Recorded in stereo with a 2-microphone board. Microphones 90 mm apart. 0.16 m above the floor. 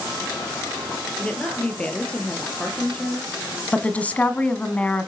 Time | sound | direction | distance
1.2 | a woman speaking | 15° left (ahead or behind) | 4 m
3.7 | a woman speaking | 15° left (ahead or behind) | 1.4 m